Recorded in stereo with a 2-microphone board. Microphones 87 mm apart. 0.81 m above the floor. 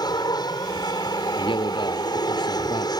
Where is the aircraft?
50° left (ahead or behind).